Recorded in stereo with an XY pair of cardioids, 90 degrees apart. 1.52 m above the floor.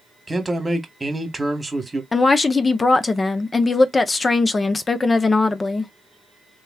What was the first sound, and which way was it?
A man speaking, 15° right.